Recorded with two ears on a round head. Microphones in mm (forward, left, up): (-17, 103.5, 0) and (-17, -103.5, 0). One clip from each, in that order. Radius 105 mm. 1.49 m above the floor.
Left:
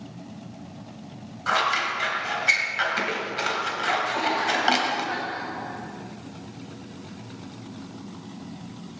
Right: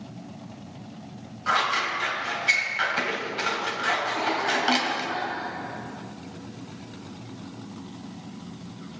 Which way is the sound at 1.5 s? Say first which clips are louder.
Left 1 dB; 15° left (ahead or behind).